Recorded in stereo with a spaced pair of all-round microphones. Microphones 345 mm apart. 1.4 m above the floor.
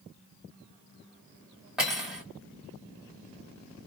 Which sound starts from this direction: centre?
Cutlery clinking, at 1.8 s.